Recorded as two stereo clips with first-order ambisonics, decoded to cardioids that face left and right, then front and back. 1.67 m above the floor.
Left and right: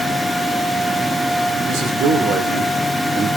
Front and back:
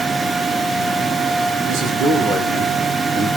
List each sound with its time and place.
1.7 s a man speaking: 130° right, 2 m